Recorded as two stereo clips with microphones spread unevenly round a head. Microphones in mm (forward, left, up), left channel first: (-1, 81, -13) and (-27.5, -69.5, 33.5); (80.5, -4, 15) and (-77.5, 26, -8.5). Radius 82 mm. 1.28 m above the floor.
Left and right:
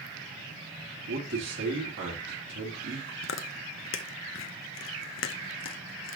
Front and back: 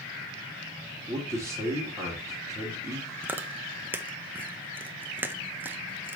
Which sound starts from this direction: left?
Chewing, at 3.2 s.